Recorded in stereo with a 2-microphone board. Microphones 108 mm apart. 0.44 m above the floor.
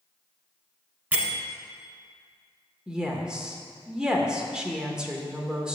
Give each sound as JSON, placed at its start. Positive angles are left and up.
{"t": 1.1, "sound": "a bell", "side_deg": -20, "distance_m": 1.0}
{"t": 2.9, "sound": "a woman speaking", "side_deg": -10, "distance_m": 0.8}